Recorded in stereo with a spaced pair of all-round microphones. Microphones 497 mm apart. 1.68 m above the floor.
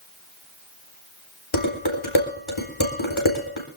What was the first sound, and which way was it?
Dishes clattering, 70° left (ahead or behind).